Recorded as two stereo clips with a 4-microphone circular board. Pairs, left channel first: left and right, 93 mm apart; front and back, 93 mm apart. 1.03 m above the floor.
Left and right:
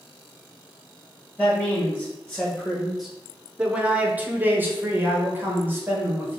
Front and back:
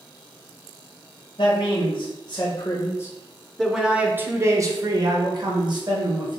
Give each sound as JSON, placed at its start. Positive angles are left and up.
{"t": 1.4, "sound": "a man speaking", "azimuth_deg": 15, "distance_m": 1.4}